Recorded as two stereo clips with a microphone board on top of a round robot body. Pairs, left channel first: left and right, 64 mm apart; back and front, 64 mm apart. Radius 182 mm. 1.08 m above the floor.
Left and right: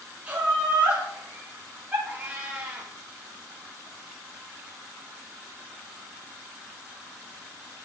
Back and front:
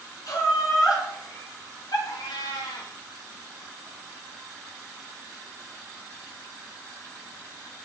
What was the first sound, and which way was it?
Laughter, 155° right.